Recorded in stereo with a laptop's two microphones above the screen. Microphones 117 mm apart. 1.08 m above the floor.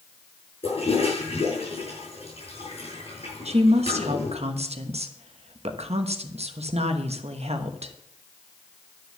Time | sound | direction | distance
0.6 | a toilet flushing | 60° left (ahead or behind) | 7 m
3.5 | a woman speaking | 65° right (ahead or behind) | 1.0 m